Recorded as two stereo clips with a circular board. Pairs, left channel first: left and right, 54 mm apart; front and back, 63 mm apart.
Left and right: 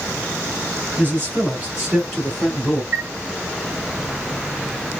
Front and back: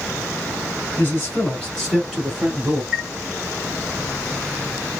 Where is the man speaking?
50° right, 1.6 m; by 2.8 s 140° left, 1.4 m.